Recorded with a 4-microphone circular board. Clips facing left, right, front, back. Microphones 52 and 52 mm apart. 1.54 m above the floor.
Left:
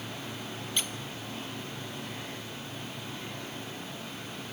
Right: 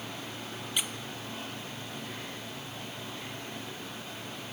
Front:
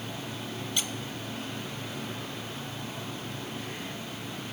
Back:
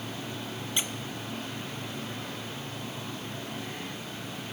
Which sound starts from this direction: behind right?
A squeak, at 0.8 s.